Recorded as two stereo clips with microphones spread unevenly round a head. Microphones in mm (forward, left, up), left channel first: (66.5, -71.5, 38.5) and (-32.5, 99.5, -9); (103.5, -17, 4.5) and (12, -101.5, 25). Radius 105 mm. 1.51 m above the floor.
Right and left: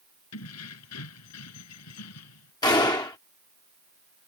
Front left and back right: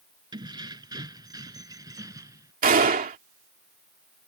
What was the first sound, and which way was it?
Keys jangling, 80° right.